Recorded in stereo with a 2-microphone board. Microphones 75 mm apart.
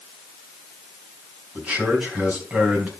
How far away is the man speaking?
About 4 m.